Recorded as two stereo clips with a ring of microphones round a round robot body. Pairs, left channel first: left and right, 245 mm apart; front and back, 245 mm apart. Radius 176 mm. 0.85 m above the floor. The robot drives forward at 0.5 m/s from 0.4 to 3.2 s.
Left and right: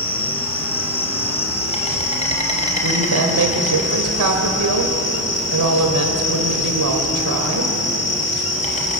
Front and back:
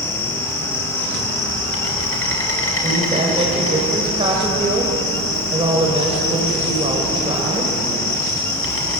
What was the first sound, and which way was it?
An insect, 20° left.